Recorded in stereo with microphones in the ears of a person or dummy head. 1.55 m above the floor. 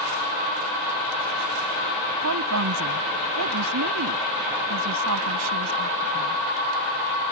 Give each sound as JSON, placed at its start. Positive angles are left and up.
{"t": 2.2, "sound": "a woman speaking", "side_deg": -80}